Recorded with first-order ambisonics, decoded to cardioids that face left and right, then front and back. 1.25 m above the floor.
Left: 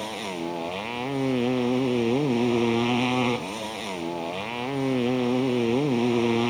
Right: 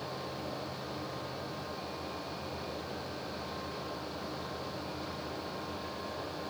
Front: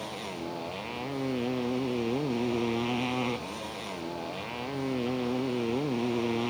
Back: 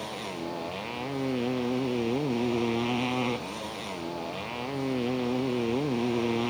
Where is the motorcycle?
95° left.